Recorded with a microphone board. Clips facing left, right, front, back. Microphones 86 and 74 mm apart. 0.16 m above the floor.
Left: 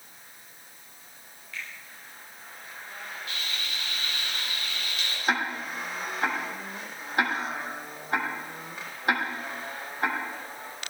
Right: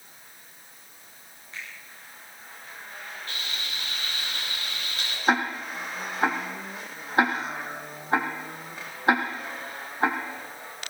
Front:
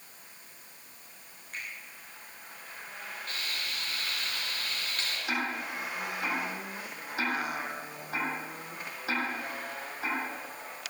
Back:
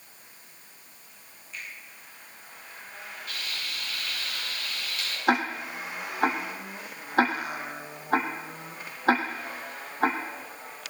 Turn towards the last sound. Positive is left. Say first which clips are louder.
# right 4 dB, back 9 dB
turn(degrees=-150)